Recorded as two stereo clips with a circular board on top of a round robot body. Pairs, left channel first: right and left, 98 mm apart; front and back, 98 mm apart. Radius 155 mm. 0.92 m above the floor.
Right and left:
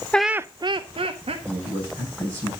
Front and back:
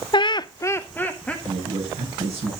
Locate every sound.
0.1 s laughter: 15° right, 0.7 m; by 1.4 s 80° left, 1.8 m
1.4 s a man speaking: 145° left, 5.5 m